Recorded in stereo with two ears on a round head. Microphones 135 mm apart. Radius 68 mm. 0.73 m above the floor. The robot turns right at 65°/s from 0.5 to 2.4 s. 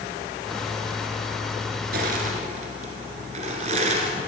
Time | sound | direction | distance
1.9 | crushing | 80° right | 1.7 m